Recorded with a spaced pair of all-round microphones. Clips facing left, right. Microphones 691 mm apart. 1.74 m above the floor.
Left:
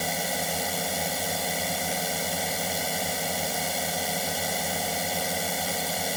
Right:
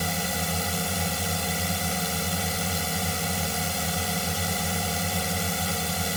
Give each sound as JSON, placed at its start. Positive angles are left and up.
{"t": 0.0, "sound": "a drone", "side_deg": -40}